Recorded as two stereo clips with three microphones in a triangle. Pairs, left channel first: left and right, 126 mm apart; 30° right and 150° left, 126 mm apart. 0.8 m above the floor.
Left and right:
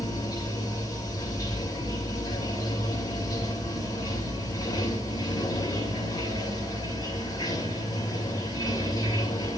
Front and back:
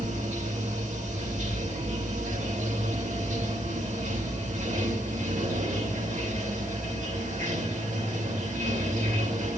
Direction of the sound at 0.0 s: 150° left.